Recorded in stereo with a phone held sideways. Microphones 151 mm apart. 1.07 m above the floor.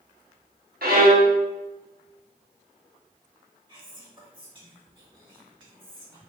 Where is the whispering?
30° right (ahead or behind), 1.7 m.